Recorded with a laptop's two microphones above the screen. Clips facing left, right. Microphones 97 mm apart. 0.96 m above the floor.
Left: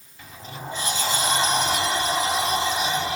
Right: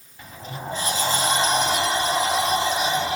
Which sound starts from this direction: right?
A sliding door, at 0.2 s.